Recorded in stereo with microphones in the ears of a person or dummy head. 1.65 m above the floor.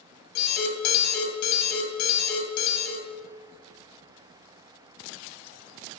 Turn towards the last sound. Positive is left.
turn(degrees=55)  # may be behind; listen again after turning